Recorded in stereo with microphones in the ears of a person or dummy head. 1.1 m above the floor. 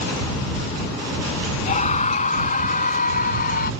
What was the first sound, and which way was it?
A scream, 35° left (ahead or behind).